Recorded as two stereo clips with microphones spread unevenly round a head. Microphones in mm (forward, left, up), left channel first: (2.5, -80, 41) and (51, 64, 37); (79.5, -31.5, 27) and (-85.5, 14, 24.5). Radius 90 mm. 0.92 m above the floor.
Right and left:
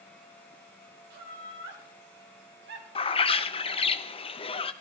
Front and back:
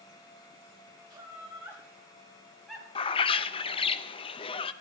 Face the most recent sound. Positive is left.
turn(degrees=-65)